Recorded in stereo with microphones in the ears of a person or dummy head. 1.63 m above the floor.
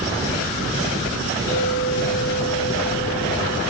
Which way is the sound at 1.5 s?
55° left (ahead or behind).